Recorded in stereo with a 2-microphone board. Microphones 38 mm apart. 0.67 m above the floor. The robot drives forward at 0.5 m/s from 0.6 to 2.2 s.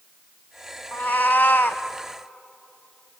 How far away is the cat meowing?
About 0.9 m.